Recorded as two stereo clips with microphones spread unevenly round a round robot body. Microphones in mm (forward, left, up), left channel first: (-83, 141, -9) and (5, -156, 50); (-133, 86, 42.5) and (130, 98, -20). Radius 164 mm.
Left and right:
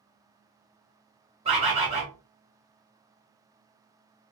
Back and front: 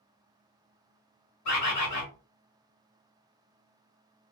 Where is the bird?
150° right, 1.5 m.